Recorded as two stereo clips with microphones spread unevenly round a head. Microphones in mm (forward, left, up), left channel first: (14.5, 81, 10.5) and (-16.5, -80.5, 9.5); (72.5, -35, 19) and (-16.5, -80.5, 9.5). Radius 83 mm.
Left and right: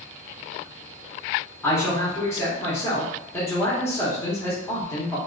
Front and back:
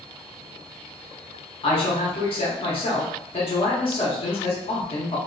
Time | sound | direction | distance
1.6 | a man speaking | 5° left | 0.9 m